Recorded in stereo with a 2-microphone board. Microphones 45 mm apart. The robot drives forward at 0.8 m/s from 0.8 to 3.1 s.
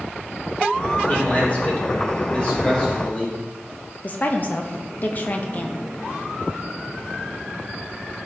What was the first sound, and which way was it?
A man speaking, 35° left (ahead or behind).